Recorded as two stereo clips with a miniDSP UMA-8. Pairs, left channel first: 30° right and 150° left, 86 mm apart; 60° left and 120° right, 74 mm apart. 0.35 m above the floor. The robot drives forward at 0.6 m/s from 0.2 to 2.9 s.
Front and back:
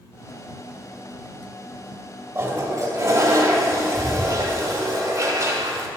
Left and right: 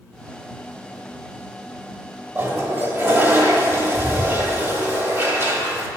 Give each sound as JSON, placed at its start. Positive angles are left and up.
{"t": 2.4, "sound": "a toilet flushing", "azimuth_deg": -170, "distance_m": 0.8}